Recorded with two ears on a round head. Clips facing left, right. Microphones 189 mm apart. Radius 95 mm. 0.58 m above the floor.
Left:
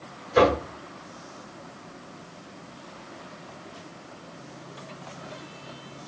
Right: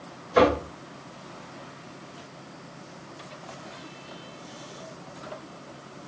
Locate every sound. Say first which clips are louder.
0.3 s knocking: even; 5° left (ahead or behind), 1.8 m